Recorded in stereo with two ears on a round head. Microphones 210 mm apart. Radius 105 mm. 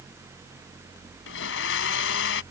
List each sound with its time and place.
1.3 s a blender: 60° left (ahead or behind)